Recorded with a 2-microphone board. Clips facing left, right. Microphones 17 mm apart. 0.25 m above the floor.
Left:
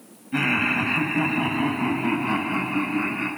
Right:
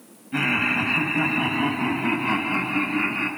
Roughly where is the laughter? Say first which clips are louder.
Even; centre.